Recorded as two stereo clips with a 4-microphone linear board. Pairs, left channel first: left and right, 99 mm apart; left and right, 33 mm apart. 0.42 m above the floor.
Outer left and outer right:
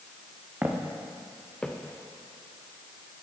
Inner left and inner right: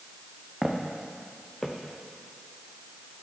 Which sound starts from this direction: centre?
Footsteps, at 0.6 s.